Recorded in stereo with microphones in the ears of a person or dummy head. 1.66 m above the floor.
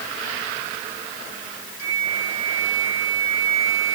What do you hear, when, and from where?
1.8 s a flute: 80° right